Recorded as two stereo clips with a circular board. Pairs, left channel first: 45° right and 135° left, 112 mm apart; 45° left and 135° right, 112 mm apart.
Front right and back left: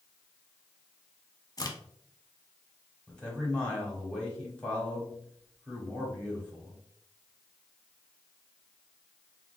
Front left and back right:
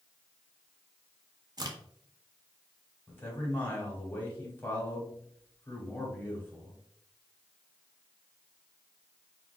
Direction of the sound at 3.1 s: 15° left.